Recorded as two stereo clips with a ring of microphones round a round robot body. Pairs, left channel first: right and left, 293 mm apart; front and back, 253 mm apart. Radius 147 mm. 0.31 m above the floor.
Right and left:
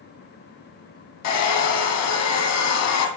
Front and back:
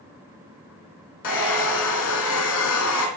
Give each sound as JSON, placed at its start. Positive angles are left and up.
{"t": 1.2, "sound": "a hair dryer", "azimuth_deg": -50, "distance_m": 2.5}